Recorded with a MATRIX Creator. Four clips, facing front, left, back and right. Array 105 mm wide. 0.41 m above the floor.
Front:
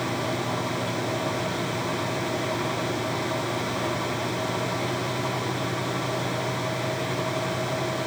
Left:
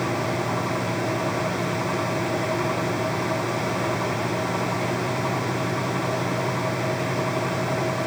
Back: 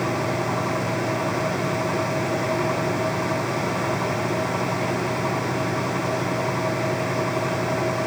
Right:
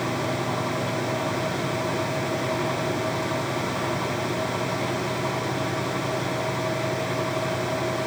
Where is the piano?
I don't hear a piano.